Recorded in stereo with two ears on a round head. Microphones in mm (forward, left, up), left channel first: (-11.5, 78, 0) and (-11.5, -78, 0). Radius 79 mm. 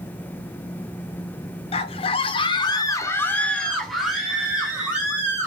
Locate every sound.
1.7 s a scream: 35° left (ahead or behind), 1.0 m; by 5.5 s 15° right (ahead or behind), 1.7 m